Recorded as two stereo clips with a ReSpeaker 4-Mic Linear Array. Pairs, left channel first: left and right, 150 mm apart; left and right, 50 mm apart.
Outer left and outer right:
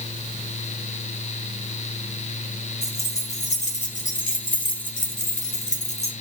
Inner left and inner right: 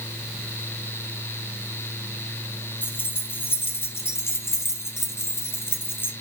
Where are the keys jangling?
45° left (ahead or behind), 3 m.